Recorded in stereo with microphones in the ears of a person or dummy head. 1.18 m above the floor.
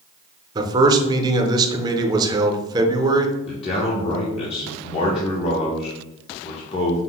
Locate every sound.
0.6 s a man speaking: 20° right (ahead or behind), 0.6 m
3.5 s a man speaking: 35° left (ahead or behind), 0.9 m